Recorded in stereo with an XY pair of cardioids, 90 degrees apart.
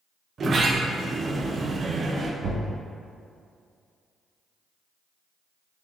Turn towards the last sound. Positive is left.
turn(degrees=-65)